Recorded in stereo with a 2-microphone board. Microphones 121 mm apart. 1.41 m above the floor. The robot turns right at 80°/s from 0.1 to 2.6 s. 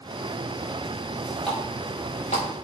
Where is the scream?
No scream in this recording.